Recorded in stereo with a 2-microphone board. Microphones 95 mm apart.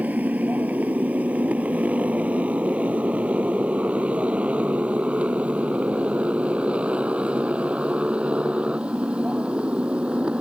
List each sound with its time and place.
0.0 s a motorcycle: 15° right (ahead or behind); by 10.4 s 10° right (ahead or behind)